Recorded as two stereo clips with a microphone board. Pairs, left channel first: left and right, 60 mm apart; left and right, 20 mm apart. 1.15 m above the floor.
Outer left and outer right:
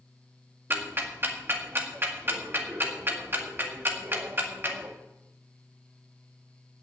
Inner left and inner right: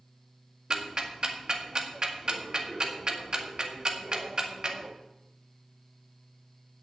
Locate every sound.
0.7 s ticking: 35° right (ahead or behind), 1.8 m